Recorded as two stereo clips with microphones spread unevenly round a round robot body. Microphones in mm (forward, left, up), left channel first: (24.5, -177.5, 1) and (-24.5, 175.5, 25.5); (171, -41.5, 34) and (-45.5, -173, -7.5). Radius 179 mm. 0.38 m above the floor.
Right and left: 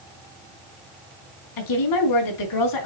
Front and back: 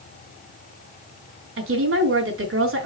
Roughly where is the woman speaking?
Behind right.